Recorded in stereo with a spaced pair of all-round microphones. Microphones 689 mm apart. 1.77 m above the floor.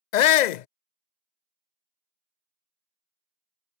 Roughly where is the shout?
Left.